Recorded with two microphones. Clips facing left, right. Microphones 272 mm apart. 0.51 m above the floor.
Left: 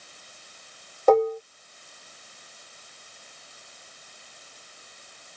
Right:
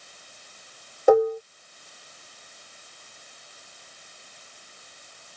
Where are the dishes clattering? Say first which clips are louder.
Right 1 dB; 10° right (ahead or behind).